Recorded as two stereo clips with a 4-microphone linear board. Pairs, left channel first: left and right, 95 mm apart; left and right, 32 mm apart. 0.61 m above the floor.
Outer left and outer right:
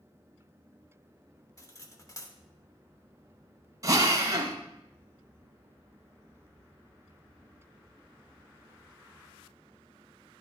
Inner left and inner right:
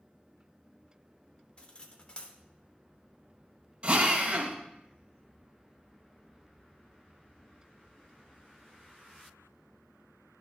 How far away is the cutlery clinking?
About 0.8 m.